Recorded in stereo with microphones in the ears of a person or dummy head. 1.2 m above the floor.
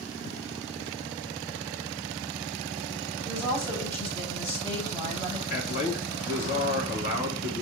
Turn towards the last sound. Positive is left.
turn(degrees=55)  # may be behind; listen again after turning